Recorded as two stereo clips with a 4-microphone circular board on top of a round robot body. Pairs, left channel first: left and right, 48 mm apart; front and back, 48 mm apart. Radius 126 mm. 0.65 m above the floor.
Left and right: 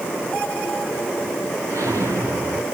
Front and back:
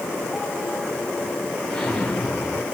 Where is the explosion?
85° right, 5.5 m.